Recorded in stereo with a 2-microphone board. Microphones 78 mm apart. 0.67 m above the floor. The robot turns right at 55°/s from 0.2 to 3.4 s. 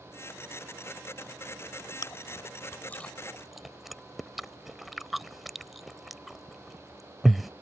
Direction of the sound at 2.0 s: 60° left (ahead or behind).